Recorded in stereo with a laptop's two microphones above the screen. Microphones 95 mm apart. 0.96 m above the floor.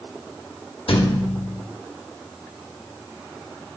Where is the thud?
65° left (ahead or behind), 1.2 m.